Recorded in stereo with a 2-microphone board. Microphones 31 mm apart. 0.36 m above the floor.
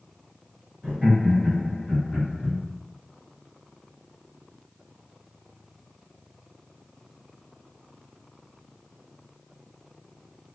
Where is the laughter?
30° right (ahead or behind), 1.5 m; by 2.6 s 10° left (ahead or behind), 1.3 m.